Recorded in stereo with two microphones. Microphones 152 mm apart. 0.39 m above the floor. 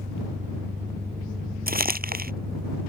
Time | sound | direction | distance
0.0 | an engine running | 90° right | ?
1.7 | crumpling | 85° right | ?